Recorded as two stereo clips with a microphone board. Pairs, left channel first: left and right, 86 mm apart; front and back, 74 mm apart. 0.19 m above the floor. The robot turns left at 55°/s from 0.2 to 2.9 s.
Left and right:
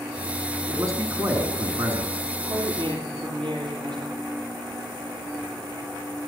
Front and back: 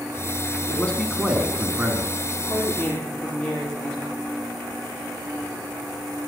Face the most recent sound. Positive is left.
turn(degrees=-75)